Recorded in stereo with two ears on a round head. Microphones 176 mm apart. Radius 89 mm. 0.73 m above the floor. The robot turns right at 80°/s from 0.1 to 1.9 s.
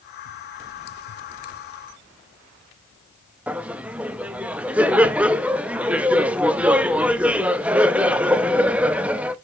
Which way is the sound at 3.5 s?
5° right (ahead or behind).